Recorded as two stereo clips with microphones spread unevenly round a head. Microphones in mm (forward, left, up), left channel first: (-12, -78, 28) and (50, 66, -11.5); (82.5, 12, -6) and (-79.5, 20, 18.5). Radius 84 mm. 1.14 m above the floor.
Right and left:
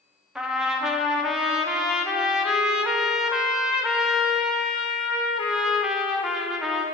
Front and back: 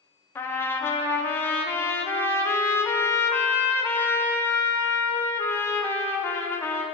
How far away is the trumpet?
About 0.6 m.